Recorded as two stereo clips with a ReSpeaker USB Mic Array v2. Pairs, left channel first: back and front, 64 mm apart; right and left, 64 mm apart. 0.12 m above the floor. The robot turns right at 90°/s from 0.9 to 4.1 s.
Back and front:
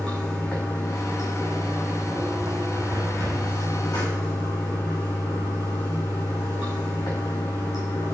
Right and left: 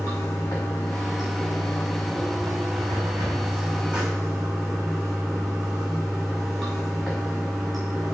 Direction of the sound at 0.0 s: 110° right.